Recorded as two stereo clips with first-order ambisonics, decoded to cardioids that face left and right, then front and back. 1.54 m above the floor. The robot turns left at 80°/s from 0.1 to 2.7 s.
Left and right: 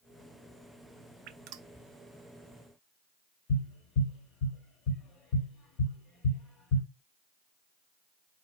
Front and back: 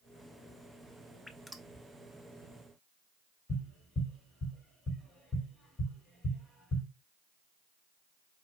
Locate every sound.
1.3 s dripping: 80° right, 0.5 m; by 1.7 s 115° right, 0.5 m
3.5 s tapping: 75° left, 1.9 m